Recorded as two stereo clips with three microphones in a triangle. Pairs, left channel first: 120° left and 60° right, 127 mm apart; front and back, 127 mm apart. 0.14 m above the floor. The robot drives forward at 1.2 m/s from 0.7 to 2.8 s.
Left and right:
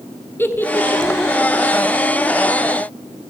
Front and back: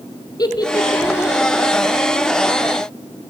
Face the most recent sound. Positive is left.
turn(degrees=160)